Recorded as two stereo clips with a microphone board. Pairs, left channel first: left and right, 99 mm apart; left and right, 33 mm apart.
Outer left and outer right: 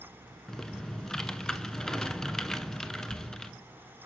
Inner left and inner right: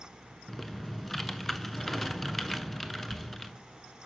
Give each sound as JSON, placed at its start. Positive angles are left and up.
{"t": 0.5, "sound": "typing on a keyboard", "side_deg": 5, "distance_m": 0.6}